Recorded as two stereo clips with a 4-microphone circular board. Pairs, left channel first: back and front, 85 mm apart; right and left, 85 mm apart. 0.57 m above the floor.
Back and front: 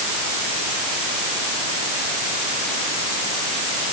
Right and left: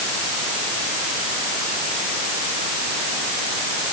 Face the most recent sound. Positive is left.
No sound to turn to.